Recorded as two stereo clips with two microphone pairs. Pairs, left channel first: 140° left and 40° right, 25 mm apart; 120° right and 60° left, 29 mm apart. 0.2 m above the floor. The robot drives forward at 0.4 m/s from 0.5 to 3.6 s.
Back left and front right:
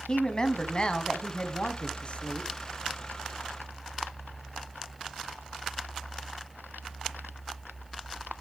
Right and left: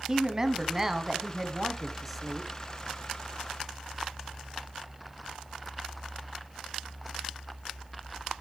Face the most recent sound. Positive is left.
turn(degrees=160)